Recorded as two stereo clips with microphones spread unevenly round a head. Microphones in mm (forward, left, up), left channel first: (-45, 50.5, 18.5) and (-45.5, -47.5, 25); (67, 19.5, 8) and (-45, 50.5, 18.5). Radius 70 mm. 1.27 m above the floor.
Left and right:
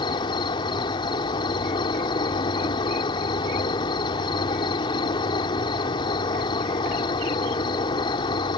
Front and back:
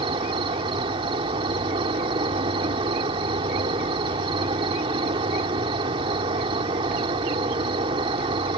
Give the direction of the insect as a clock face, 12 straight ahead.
8 o'clock.